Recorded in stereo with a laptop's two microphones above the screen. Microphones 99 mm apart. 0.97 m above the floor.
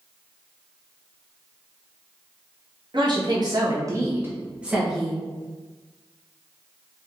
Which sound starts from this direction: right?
A woman speaking, at 2.9 s.